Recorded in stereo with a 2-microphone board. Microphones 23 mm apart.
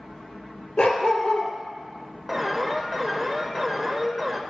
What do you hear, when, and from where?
0.8 s a dog barking: 75° left (ahead or behind), 2 m
2.3 s an alarm: centre (ahead or behind), 1.0 m